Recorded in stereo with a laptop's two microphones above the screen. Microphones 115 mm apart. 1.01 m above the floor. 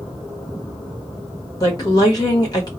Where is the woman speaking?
35° left (ahead or behind), 1.5 m.